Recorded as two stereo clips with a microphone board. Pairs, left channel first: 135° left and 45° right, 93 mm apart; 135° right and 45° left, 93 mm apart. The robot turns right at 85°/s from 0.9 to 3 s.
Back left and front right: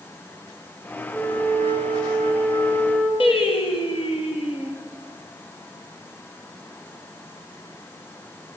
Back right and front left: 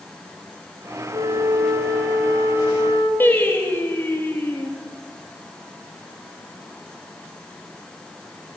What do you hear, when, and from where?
1.1 s a flute: 45° left, 7 m; by 3.1 s 155° right, 7 m
3.2 s singing: 155° left, 4 m